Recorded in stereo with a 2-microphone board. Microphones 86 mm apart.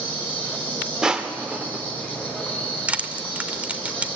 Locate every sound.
0.0 s an insect: 15° left (ahead or behind), 4.5 m
1.0 s crushing: 10° right (ahead or behind), 1.0 m
2.9 s crushing: 15° right (ahead or behind), 0.8 m